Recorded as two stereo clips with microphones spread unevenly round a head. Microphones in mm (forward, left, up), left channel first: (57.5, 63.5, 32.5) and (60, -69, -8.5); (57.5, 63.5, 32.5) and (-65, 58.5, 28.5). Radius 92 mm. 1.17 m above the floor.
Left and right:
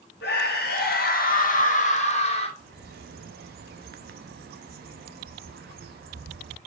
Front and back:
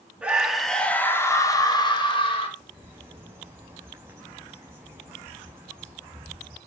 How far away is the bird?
About 0.7 m.